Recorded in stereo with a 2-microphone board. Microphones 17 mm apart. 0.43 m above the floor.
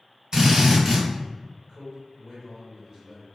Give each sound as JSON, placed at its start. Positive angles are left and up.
{"t": 0.3, "sound": "a drill", "side_deg": -40, "distance_m": 1.7}
{"t": 1.7, "sound": "a man speaking", "side_deg": -40, "distance_m": 1.6}